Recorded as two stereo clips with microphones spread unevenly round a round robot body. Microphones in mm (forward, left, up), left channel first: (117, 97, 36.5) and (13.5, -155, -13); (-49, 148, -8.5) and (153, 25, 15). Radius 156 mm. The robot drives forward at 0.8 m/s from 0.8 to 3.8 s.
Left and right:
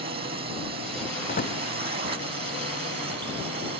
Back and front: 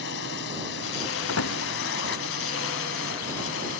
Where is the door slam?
130° left; by 1.6 s 135° left.